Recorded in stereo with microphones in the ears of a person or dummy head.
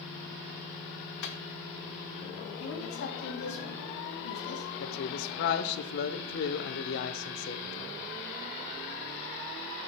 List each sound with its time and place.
1.2 s a microwave: 65° left (ahead or behind), 1.0 m
2.6 s a woman speaking: 70° left (ahead or behind), 2.0 m
4.8 s a man speaking: 65° left (ahead or behind), 0.8 m